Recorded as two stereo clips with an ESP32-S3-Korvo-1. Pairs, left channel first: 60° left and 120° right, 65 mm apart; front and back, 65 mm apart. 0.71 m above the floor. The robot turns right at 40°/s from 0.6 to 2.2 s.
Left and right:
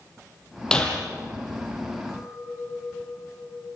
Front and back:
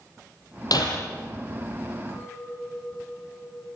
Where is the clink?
30° right, 8 m; by 3.7 s 25° right, 8 m.